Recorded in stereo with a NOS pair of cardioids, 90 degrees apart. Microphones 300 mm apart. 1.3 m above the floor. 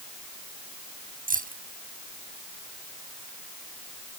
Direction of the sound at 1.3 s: 30° right.